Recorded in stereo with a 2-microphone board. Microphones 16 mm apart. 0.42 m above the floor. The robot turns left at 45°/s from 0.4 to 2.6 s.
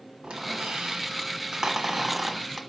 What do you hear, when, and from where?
0.2 s a squeak: 90° right, 1.3 m; by 2.6 s 175° left, 1.3 m